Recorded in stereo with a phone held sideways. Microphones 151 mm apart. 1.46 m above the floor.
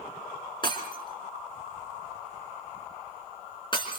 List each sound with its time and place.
0.6 s breaking glass: 30° left (ahead or behind), 3.5 m